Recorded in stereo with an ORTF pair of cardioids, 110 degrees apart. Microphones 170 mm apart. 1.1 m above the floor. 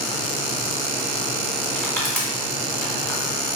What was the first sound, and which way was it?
Crushing, 5° left.